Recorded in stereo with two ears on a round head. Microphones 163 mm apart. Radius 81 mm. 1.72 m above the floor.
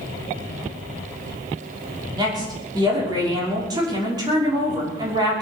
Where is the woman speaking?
20° right (ahead or behind), 5.5 m.